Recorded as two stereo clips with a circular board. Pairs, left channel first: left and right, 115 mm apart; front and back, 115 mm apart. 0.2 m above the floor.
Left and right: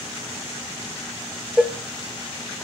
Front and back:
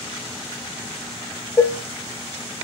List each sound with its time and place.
1.6 s dishes clattering: 10° right, 0.7 m